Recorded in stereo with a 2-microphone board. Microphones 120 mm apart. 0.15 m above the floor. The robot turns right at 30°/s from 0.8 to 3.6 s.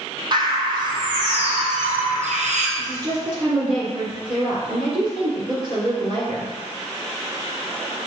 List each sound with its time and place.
0.3 s a bird: 140° right, 0.8 m; by 2.7 s 85° right, 0.8 m
2.8 s a woman speaking: 30° right (ahead or behind), 1.8 m; by 6.5 s 45° right (ahead or behind), 1.8 m